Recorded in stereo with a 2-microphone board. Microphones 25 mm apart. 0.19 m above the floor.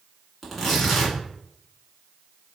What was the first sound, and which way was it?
Tearing paper, 5° left (ahead or behind).